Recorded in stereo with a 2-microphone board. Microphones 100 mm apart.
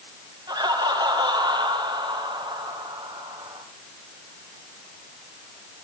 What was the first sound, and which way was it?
Laughter, 45° right (ahead or behind).